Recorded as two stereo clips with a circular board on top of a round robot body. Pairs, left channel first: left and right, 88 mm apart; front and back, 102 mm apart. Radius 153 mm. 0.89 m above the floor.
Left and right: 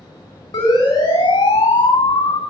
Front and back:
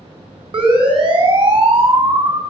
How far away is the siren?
About 9.5 m.